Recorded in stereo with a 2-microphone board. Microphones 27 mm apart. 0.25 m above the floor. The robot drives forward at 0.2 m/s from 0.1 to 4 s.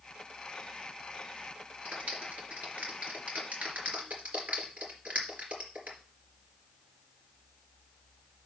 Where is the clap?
75° right (ahead or behind), 3.5 m.